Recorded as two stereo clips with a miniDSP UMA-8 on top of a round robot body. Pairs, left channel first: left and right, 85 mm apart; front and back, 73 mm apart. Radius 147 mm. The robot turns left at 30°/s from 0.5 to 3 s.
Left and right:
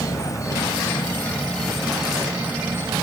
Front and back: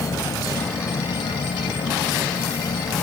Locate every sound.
0.0 s an insect: 40° left; by 3.0 s 35° right